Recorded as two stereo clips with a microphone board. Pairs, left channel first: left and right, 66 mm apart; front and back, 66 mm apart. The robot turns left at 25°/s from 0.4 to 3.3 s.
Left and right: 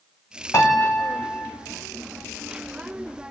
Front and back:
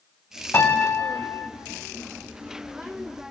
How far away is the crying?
I don't hear crying.